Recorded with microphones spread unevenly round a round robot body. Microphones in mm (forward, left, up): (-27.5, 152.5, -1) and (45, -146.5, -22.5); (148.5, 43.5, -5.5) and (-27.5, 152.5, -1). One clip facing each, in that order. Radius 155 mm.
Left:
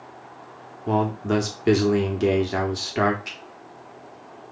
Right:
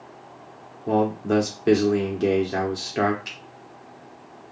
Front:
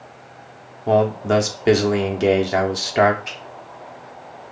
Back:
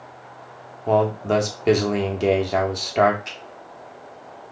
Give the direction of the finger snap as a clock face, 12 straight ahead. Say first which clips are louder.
Left 2 dB, front 3 dB; 5 o'clock.